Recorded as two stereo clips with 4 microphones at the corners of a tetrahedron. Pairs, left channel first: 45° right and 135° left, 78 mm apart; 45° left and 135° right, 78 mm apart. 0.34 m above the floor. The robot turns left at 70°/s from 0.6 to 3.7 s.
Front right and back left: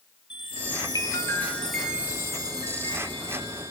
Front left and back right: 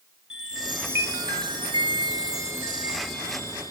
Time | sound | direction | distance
0.3 | a chime | 55° right | 1.6 m